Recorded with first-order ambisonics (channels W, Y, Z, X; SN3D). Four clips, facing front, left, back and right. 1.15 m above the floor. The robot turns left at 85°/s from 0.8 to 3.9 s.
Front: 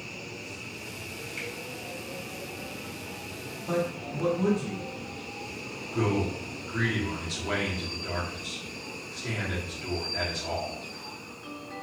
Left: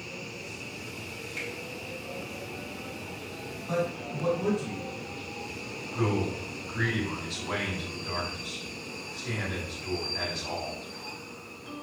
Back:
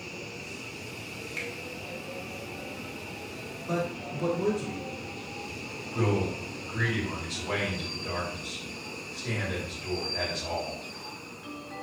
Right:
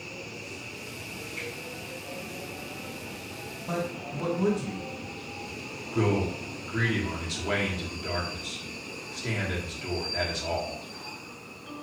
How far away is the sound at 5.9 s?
About 1.2 m.